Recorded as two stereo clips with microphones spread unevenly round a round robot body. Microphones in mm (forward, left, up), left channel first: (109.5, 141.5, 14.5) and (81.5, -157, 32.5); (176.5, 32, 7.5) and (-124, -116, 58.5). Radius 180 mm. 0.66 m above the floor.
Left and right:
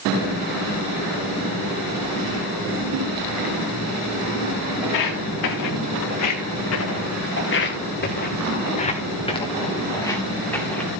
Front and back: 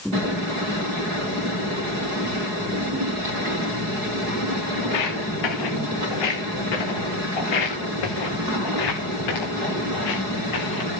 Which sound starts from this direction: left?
Footsteps, at 4.8 s.